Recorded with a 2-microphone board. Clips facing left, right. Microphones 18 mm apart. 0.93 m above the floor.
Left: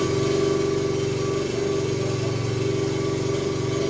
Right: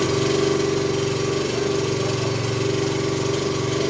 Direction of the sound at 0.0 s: 45° right (ahead or behind).